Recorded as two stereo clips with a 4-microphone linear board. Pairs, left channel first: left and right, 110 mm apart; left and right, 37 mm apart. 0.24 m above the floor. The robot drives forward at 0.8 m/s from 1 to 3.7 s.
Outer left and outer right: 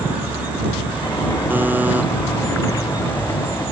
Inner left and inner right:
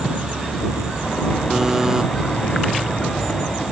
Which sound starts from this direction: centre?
A buzzer, at 1.5 s.